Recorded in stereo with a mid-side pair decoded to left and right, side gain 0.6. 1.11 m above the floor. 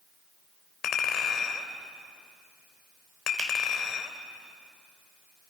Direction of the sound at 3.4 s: 40° right.